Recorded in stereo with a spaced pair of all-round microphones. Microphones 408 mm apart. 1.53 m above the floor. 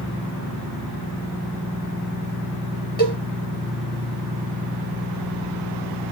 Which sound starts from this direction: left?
A cowbell, at 3.0 s.